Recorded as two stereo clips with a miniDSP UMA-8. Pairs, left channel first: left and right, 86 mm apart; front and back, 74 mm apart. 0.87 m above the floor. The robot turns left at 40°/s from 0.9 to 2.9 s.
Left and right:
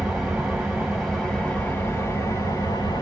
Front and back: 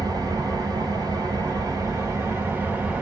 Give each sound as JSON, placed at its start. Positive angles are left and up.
{"t": 0.0, "sound": "an engine running", "azimuth_deg": -170, "distance_m": 1.3}